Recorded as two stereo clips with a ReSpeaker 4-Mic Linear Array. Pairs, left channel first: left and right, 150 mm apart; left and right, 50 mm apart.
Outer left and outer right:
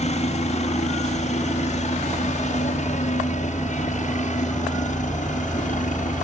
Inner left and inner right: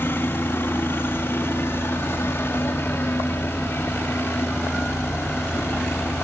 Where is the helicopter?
45° left (ahead or behind); by 6.2 s 55° left (ahead or behind).